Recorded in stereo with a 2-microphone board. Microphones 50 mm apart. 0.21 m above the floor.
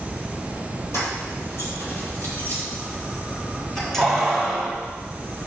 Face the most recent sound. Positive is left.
turn(degrees=0)  # may be behind; listen again after turning